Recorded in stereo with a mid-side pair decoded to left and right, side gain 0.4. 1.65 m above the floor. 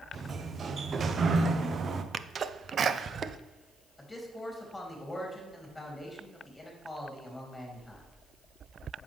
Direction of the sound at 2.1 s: 50° right.